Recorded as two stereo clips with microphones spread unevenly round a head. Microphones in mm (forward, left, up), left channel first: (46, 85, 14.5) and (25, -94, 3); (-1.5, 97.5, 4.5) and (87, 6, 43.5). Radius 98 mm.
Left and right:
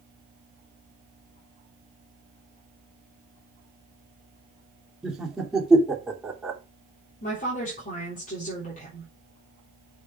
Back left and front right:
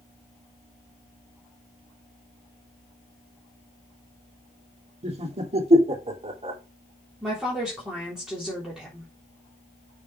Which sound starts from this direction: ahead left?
A woman speaking, at 7.2 s.